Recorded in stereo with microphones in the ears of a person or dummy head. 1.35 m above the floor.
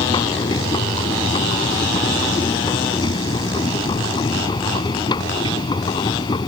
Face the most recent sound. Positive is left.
turn(degrees=25)  # may be behind; listen again after turning